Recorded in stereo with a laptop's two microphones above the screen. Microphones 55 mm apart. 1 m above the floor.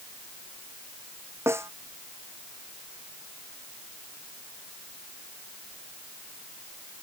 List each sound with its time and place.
1.5 s a snare drum: 55° right (ahead or behind)